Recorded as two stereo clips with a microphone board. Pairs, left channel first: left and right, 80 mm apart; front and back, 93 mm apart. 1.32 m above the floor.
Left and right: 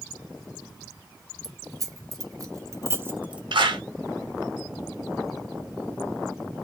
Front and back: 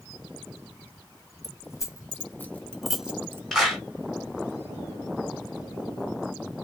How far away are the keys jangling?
About 1.2 m.